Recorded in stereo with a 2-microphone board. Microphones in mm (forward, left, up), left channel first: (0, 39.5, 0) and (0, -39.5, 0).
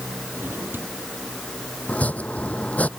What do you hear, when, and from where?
0.4 s a drawer: 25° right (ahead or behind)
1.9 s chopping: 20° left (ahead or behind)